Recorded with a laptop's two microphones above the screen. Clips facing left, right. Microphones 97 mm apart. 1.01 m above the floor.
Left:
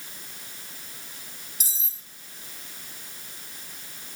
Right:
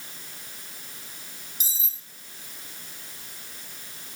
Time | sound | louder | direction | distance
1.6 | cutlery clinking | even | 70° left (ahead or behind) | 1.7 m